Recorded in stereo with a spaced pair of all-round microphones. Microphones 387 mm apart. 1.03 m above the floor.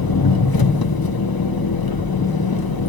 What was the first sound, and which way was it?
An engine running, 70° left (ahead or behind).